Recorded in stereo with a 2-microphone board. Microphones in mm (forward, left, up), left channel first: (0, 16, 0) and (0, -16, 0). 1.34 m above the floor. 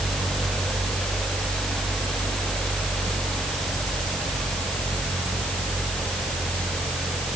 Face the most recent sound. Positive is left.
No sound to turn to.